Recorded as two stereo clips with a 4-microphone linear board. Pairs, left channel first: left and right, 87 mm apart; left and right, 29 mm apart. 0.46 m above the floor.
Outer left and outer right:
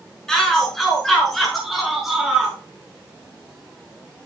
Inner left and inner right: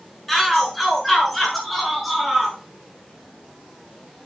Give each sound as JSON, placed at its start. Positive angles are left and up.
{"t": 0.3, "sound": "a shout", "side_deg": 5, "distance_m": 6.0}